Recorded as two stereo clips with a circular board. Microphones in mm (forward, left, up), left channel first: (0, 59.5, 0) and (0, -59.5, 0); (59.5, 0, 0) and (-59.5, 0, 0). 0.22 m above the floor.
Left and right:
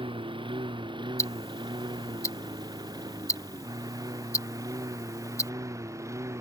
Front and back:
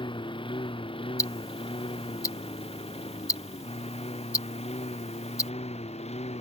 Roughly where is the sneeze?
No sneeze in this recording.